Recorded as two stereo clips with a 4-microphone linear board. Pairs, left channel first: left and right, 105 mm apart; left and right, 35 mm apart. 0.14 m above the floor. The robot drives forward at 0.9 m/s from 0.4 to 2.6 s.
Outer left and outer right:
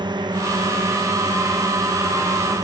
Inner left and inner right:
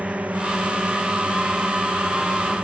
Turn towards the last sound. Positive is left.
turn(degrees=-40)  # may be behind; listen again after turning